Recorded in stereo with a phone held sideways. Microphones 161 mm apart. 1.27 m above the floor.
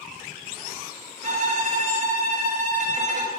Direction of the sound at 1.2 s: 50° right (ahead or behind).